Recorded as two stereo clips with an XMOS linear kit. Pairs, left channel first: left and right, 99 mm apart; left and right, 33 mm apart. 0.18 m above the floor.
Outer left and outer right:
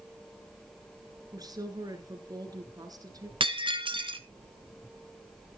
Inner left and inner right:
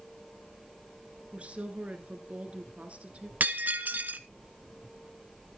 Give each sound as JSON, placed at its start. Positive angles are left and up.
{"t": 1.3, "sound": "a woman speaking", "side_deg": -40, "distance_m": 2.0}
{"t": 3.4, "sound": "breaking glass", "side_deg": -60, "distance_m": 0.8}